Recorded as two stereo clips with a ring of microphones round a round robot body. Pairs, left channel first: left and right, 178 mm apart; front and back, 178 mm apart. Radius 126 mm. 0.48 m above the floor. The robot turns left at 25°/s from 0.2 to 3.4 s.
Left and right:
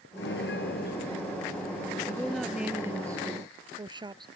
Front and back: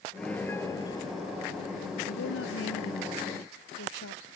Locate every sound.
0.2 s a piano: 85° left; by 2.0 s 40° left
2.1 s a woman speaking: 10° left; by 4.3 s 25° right